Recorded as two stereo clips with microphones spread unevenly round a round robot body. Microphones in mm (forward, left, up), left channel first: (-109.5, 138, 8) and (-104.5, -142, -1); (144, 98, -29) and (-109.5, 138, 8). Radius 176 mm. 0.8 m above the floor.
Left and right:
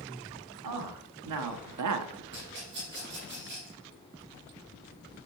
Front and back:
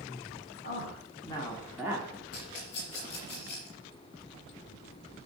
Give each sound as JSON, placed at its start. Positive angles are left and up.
{"t": 0.6, "sound": "a man speaking", "azimuth_deg": -75, "distance_m": 1.7}
{"t": 2.3, "sound": "a rattle", "azimuth_deg": -25, "distance_m": 3.5}